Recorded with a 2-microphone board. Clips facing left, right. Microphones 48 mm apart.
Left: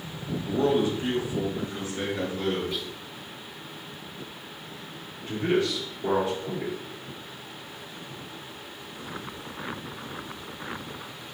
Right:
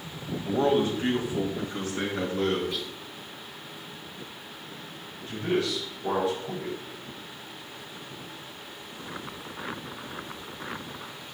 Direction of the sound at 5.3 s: 30° left (ahead or behind).